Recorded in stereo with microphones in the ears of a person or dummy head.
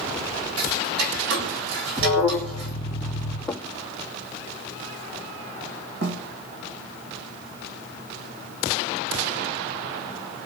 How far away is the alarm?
About 3.5 m.